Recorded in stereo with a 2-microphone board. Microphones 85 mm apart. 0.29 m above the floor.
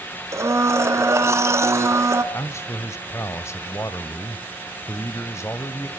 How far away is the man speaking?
About 1.1 m.